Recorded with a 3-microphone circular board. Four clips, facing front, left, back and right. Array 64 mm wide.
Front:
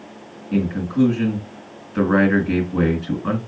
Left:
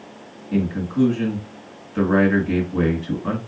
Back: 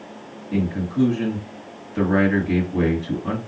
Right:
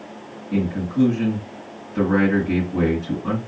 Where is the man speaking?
10° left, 3 m.